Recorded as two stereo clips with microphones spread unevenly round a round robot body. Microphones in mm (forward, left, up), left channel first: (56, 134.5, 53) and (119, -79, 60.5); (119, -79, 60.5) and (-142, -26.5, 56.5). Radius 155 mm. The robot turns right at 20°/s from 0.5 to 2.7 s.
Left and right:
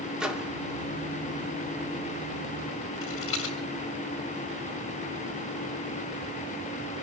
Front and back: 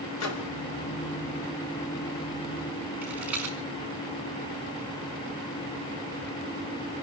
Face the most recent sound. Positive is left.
turn(degrees=85)